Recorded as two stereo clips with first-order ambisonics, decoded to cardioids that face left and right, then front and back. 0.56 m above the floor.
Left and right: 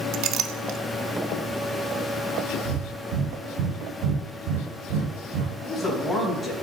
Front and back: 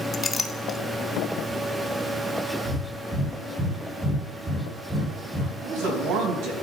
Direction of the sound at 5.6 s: 170° left.